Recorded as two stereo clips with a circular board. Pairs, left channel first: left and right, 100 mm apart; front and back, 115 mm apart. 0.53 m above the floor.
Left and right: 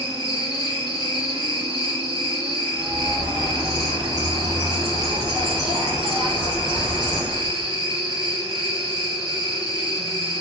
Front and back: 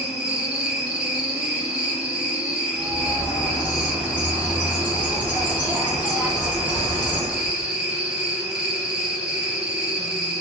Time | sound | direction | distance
0.0 | an insect | 100° left | 0.7 m
2.7 | a bird | 105° left | 1.9 m